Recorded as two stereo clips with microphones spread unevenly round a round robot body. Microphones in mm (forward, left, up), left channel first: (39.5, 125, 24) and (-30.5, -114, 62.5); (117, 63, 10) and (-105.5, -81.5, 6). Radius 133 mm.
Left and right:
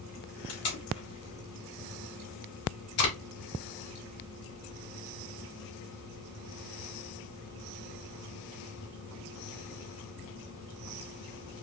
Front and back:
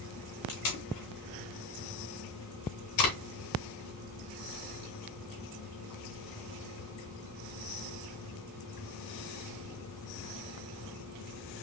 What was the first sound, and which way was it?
Tape being pulled, 45° left.